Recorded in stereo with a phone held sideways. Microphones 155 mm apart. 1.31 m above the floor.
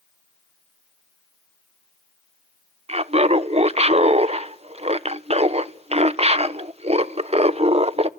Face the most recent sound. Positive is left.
turn(degrees=-40)  # may be behind; listen again after turning